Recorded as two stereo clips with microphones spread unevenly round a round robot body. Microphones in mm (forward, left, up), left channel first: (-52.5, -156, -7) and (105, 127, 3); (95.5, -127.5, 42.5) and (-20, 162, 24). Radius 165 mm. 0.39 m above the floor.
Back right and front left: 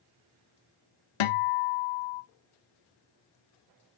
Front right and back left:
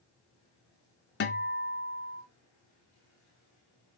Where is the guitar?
130° right, 1.3 m.